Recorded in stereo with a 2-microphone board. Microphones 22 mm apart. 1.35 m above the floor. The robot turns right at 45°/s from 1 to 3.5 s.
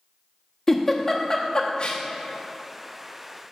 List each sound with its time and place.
0.7 s a giggle: 20° left (ahead or behind), 0.7 m; by 2.0 s 60° left (ahead or behind), 0.7 m